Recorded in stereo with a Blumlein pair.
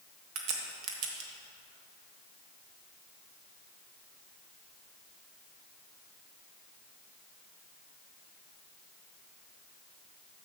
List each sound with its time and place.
0.3 s a crack: 45° right, 1.4 m